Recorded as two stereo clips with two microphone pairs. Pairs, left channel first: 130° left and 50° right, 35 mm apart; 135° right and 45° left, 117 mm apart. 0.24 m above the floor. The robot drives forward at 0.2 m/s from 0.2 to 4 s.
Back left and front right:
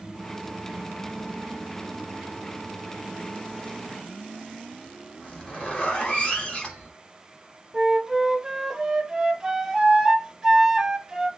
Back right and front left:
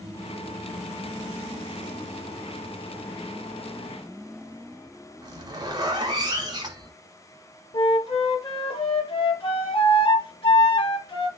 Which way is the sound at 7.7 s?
120° right.